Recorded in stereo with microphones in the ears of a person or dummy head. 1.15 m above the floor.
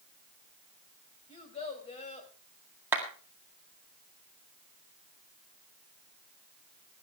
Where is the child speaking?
30° left (ahead or behind), 3 m.